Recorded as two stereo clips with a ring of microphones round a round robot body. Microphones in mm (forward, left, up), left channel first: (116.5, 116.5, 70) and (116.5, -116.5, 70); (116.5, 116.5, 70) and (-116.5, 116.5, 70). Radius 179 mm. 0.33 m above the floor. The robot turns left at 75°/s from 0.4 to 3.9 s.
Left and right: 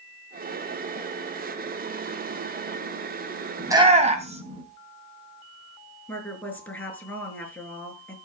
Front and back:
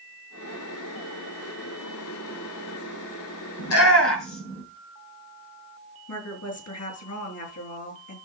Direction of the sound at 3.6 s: 5° right.